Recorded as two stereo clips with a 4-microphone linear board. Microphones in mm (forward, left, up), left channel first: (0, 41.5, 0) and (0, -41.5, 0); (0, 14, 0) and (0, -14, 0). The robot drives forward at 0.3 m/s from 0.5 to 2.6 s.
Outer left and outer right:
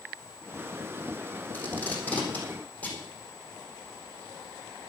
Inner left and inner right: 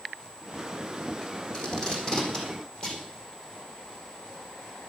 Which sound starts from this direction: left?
Tape being pulled, at 1.5 s.